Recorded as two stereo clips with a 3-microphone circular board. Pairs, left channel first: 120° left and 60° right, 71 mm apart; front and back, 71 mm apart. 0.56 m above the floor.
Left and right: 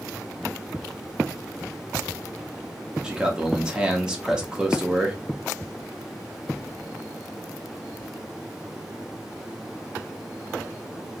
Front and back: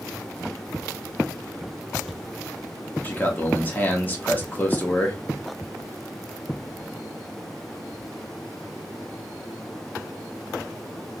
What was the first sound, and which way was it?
A man speaking, straight ahead.